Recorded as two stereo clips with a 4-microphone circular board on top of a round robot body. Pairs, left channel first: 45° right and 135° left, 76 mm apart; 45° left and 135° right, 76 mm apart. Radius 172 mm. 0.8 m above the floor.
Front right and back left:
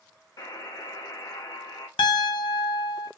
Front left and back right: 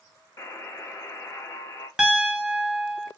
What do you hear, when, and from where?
0.4 s a buzzer: 5° right, 0.7 m
2.0 s a piano: 55° right, 0.6 m